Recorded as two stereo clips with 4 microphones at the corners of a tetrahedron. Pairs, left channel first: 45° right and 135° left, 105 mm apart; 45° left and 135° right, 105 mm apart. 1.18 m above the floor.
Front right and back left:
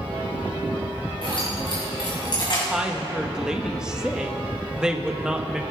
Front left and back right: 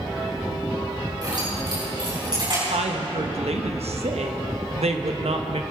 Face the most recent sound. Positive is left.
turn(degrees=-145)